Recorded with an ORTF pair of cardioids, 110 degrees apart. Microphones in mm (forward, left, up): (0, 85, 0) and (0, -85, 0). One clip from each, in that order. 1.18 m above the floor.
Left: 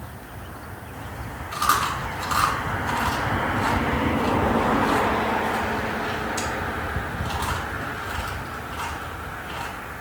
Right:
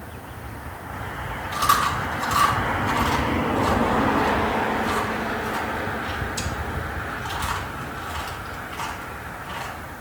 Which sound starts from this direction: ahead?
Chewing, at 1.5 s.